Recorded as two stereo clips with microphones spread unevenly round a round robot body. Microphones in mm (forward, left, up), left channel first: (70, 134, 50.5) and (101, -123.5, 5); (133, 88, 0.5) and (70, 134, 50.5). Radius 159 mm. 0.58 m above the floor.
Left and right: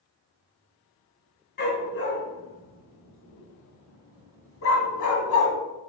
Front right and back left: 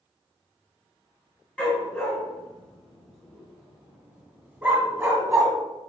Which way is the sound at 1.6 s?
45° left.